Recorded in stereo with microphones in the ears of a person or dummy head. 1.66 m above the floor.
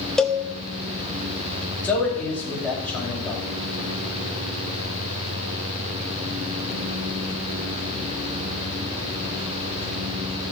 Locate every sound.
0.2 s a cowbell: centre (ahead or behind), 0.7 m
1.8 s a man speaking: 5° left (ahead or behind), 5 m